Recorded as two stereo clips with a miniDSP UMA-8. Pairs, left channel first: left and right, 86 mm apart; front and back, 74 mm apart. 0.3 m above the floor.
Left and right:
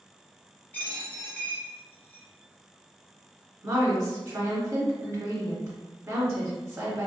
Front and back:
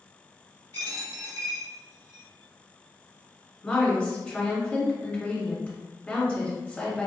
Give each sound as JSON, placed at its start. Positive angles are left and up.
{"t": 0.7, "sound": "a dropped coin", "azimuth_deg": 160, "distance_m": 1.4}
{"t": 3.6, "sound": "a woman speaking", "azimuth_deg": -65, "distance_m": 1.3}